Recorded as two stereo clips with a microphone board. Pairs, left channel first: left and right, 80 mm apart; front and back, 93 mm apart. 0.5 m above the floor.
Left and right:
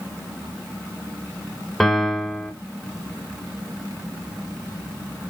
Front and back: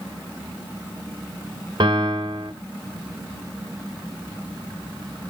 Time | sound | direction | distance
1.8 | a piano | 175° left | 1.4 m